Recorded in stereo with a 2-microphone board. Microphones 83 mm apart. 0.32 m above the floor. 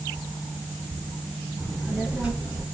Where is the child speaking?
5° left (ahead or behind), 3 m; by 2.6 s 10° right (ahead or behind), 3 m.